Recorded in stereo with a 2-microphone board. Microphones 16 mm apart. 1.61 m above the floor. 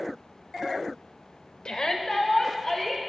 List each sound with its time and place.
1.6 s a shout: 65° left (ahead or behind), 1.2 m; by 3.0 s 40° left (ahead or behind), 2.5 m